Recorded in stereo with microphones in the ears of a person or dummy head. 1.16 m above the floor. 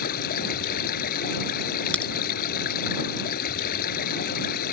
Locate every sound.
0.0 s running water: 60° left (ahead or behind)
1.9 s a crack: 10° left (ahead or behind)